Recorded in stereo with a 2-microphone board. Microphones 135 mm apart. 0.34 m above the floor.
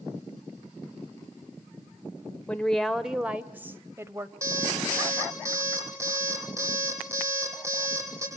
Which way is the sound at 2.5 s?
10° left (ahead or behind).